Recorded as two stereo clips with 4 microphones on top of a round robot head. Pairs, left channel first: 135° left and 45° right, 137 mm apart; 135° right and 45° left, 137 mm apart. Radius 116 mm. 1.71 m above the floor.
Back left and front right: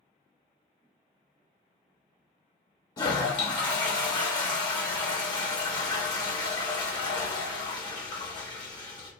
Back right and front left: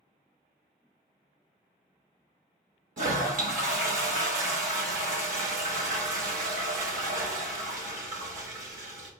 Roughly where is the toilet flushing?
Left.